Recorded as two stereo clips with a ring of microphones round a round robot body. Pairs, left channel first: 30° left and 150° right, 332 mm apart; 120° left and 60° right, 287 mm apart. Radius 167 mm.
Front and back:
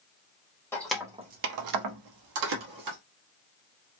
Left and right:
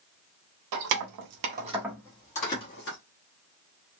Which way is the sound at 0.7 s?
55° right.